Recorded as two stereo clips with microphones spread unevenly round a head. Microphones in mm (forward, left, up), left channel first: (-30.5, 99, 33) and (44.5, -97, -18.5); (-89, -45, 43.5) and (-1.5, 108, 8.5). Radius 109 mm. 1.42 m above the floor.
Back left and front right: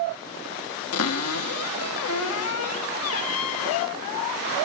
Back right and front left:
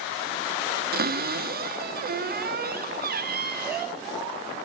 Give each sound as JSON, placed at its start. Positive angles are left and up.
{"t": 0.9, "sound": "a cupboard door", "azimuth_deg": 95, "distance_m": 3.0}